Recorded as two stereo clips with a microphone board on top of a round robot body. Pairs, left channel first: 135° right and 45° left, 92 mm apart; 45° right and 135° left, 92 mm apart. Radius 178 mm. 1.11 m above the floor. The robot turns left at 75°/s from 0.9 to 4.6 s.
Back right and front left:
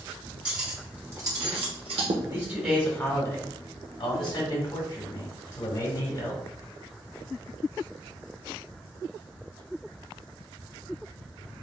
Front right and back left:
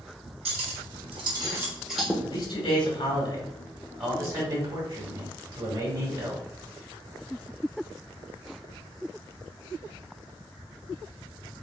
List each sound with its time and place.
0.5 s cutlery clinking: 125° left, 0.7 m; by 2.1 s 30° left, 0.7 m
2.2 s a man speaking: 15° right, 2.5 m; by 6.5 s 170° left, 2.5 m